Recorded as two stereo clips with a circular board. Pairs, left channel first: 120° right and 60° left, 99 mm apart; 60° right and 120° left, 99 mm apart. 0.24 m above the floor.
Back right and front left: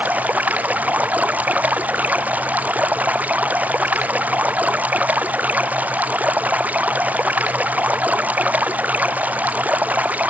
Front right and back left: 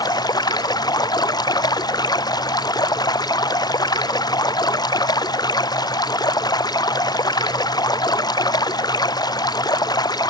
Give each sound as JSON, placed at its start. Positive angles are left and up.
{"t": 0.0, "sound": "running water", "azimuth_deg": -15}